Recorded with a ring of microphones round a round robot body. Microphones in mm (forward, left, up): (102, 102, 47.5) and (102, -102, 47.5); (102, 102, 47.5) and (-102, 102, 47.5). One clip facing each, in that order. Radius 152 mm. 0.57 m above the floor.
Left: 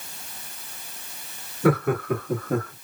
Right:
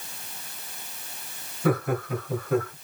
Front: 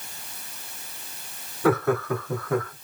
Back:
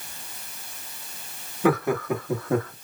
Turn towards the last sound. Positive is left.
turn(degrees=135)